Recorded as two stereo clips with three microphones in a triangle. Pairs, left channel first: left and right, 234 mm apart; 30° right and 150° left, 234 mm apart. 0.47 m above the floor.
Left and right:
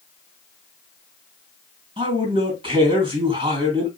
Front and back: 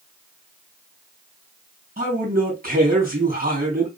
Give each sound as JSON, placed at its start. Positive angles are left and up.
{"t": 2.0, "sound": "a man speaking", "azimuth_deg": -155, "distance_m": 3.0}